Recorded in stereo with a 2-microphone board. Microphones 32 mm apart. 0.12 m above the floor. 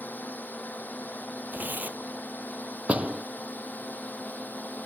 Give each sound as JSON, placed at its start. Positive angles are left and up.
{"t": 0.0, "sound": "a drone", "side_deg": 70}
{"t": 1.5, "sound": "tearing paper", "side_deg": -70}
{"t": 2.9, "sound": "a door slam", "side_deg": -45}